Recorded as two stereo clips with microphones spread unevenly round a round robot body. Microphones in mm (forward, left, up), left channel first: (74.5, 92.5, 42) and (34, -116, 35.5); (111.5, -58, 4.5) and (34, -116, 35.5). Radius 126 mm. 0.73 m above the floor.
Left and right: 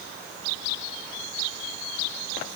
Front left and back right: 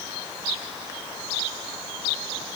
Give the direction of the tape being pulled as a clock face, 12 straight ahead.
I don't hear tape being pulled.